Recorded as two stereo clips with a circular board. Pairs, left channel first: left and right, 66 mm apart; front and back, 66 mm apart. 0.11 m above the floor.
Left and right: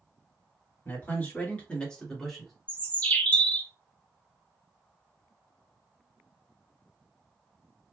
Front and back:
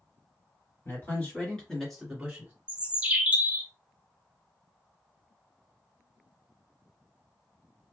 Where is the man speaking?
45° left, 2.5 m; by 2.5 s 170° right, 1.8 m.